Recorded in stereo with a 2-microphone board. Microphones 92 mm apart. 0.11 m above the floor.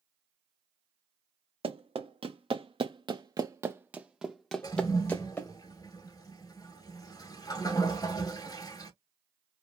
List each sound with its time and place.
1.6 s running footsteps: 90° right, 1.2 m; by 5.5 s 25° left (ahead or behind), 1.2 m
4.6 s a toilet flushing: 45° left (ahead or behind), 0.7 m